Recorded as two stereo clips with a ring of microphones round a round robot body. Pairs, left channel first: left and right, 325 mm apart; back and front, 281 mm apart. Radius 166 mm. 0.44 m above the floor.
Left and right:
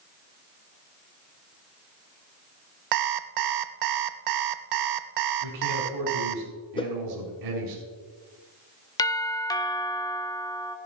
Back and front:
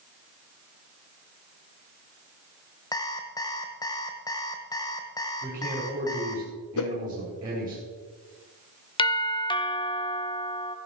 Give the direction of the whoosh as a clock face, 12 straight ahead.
6 o'clock.